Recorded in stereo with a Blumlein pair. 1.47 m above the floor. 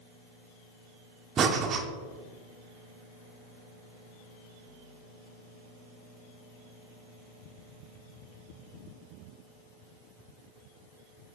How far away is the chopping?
I don't hear chopping.